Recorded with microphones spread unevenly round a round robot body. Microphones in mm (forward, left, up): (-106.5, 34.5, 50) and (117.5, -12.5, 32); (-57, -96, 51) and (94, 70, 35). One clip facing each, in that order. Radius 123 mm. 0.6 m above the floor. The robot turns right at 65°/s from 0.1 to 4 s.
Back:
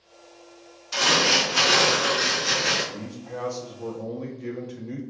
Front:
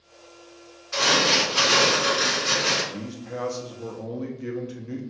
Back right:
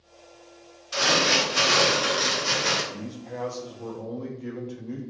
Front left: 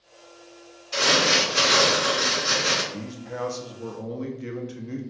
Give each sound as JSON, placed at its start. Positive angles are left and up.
{"t": 0.9, "sound": "crumpling", "azimuth_deg": 155, "distance_m": 1.6}
{"t": 2.9, "sound": "a man speaking", "azimuth_deg": -25, "distance_m": 0.6}